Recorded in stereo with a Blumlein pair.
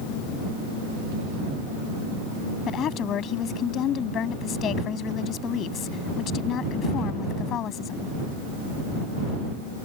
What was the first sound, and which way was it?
A woman speaking, 30° left.